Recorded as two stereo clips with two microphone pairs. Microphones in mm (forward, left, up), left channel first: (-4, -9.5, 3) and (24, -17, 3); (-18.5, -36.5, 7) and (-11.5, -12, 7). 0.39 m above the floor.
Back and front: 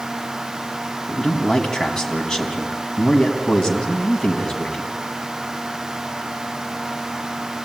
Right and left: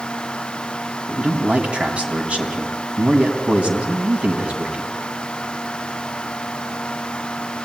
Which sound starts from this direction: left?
A man speaking, at 1.1 s.